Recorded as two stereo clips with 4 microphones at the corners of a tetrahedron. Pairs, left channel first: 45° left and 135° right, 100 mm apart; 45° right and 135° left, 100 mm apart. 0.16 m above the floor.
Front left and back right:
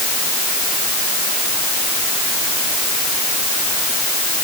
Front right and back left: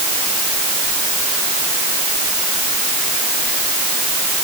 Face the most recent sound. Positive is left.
No sound to turn to.